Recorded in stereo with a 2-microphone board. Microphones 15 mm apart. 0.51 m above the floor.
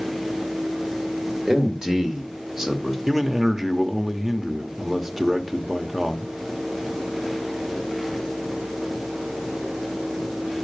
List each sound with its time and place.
1.5 s a man speaking: 55° right (ahead or behind), 2 m; by 3.0 s 35° right (ahead or behind), 1.5 m
3.1 s a man speaking: 35° right (ahead or behind), 1.1 m